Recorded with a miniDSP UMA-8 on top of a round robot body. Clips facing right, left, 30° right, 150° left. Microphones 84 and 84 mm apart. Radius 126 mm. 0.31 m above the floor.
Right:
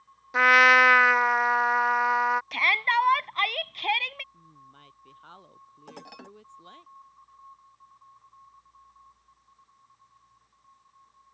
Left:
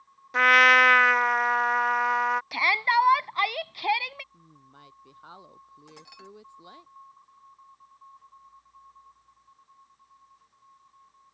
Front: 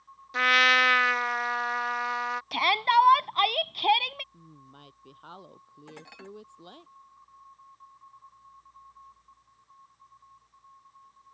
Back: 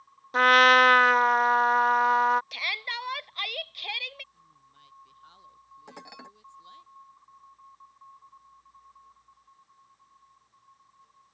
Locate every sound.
0.3 s a trumpet: 175° right
2.5 s a shout: 10° left
4.3 s a woman speaking: 10° left
5.9 s dishes clattering: 135° right